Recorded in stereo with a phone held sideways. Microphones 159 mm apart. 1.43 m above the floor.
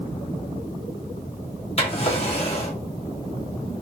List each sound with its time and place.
1.8 s a drawer: 40° left (ahead or behind), 1.4 m